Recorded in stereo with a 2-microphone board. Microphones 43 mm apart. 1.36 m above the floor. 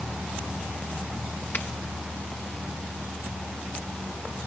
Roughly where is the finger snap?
Left.